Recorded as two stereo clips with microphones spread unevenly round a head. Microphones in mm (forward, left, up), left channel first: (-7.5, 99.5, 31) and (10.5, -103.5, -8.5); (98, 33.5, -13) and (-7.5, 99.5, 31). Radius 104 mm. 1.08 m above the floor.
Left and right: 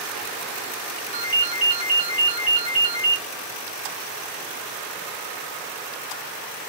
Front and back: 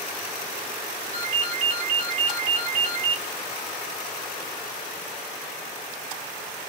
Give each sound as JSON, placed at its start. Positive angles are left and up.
{"t": 1.1, "sound": "a ringtone", "azimuth_deg": 150, "distance_m": 2.0}